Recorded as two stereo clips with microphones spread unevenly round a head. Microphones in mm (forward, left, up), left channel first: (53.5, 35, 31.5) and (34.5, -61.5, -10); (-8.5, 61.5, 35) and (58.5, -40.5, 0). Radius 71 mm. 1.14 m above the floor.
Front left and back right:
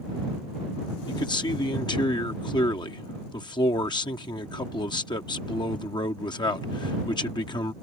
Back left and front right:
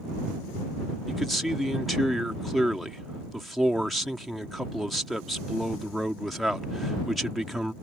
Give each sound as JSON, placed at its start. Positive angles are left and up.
{"t": 1.1, "sound": "a man speaking", "azimuth_deg": 30}